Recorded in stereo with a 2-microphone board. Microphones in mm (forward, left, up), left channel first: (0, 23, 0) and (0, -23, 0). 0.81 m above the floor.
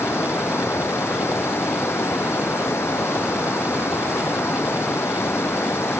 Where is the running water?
60° left (ahead or behind).